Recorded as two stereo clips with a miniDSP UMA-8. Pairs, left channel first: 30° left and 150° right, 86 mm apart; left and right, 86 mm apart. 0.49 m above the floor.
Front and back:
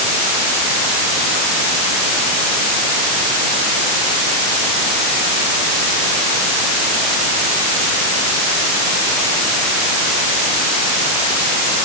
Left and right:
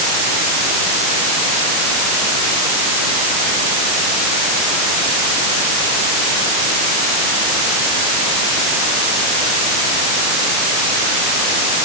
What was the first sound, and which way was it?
Only background noise.